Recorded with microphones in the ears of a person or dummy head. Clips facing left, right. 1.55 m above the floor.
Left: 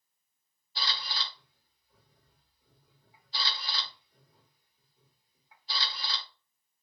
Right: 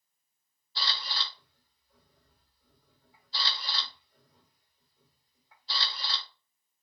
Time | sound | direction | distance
0.8 | a camera shutter | 15° left (ahead or behind) | 1.6 m